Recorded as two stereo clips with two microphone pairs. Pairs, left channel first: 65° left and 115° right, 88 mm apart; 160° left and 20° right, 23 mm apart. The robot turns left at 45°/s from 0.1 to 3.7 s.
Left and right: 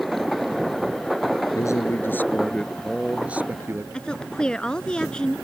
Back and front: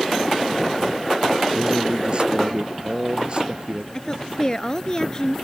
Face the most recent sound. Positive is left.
turn(degrees=135)